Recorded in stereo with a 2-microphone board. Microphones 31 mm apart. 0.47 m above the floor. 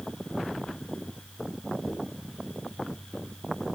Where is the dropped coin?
55° left (ahead or behind), 2.5 m.